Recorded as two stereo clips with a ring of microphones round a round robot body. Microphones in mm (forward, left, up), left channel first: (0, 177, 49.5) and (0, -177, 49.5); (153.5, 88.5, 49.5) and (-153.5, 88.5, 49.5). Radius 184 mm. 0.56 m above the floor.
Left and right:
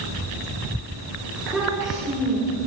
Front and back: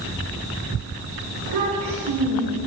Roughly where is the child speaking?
Behind.